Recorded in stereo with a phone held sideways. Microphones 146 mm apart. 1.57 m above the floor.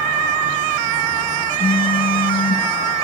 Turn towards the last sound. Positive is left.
turn(degrees=75)  # may be behind; listen again after turning